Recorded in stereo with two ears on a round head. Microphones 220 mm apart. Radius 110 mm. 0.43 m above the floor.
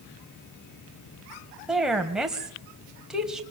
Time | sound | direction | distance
1.7 | a woman speaking | 5° right (ahead or behind) | 2 m